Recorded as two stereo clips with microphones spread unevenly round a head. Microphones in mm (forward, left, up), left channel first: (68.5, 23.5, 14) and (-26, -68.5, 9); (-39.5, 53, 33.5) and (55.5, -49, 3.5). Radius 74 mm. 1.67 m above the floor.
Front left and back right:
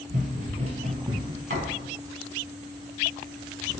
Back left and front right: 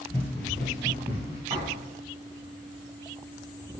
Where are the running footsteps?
160° right, 2.5 m; by 1.4 s 115° right, 1.7 m.